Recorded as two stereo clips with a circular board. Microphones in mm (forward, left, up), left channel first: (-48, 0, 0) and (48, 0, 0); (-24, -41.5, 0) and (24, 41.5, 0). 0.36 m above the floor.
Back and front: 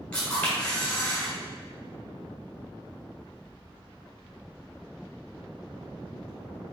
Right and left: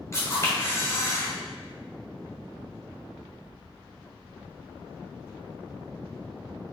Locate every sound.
0.1 s a camera shutter: 115° right, 1.6 m